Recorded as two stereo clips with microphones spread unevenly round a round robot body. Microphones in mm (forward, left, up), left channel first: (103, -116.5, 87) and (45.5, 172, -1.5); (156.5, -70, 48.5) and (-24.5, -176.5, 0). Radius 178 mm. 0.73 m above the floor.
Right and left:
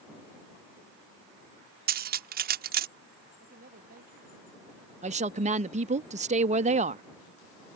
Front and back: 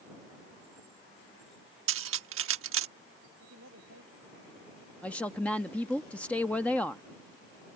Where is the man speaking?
165° left.